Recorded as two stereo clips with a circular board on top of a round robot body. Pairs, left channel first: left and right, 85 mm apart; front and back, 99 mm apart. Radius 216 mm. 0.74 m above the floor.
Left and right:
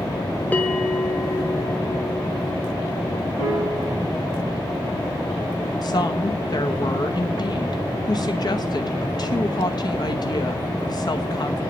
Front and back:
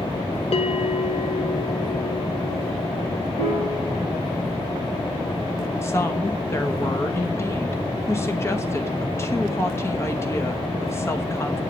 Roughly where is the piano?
Ahead.